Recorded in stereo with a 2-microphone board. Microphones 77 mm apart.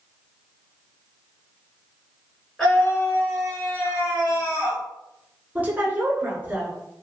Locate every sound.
2.6 s a scream: 5° left (ahead or behind), 1.3 m; by 4.8 s 55° left (ahead or behind), 2.5 m
5.5 s a woman speaking: 25° right (ahead or behind), 1.2 m